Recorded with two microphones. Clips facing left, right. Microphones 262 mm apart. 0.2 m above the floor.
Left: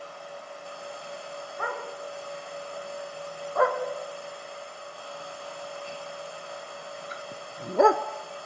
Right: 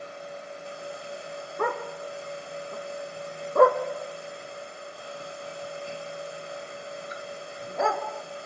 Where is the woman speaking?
I don't hear a woman speaking.